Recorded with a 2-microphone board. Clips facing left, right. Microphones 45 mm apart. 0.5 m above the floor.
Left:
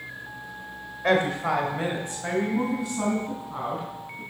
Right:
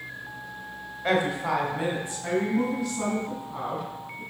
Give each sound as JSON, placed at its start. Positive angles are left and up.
{"t": 1.0, "sound": "a woman speaking", "side_deg": 40, "distance_m": 2.0}